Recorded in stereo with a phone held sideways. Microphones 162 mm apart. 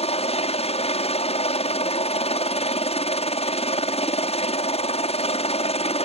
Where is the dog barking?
No dog barking in this recording.